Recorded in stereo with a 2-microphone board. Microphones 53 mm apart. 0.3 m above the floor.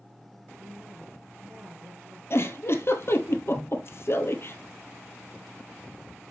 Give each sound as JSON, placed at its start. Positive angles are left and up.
{"t": 0.6, "sound": "a woman speaking", "side_deg": -70, "distance_m": 4.5}
{"t": 2.3, "sound": "a giggle", "side_deg": 50, "distance_m": 1.3}